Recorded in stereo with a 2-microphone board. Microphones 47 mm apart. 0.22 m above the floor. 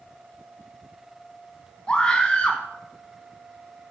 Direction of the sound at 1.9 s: 25° left (ahead or behind).